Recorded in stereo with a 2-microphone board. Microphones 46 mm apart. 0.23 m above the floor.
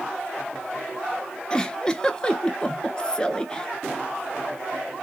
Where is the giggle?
20° left (ahead or behind), 0.7 m.